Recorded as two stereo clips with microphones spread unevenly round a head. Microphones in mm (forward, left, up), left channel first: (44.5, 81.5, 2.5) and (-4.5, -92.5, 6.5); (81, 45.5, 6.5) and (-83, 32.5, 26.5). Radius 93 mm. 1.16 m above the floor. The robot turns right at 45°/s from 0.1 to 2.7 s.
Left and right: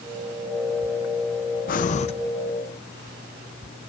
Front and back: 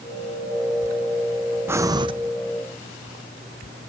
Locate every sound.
1.7 s breathing: 105° left, 0.5 m; by 2.1 s 125° left, 0.5 m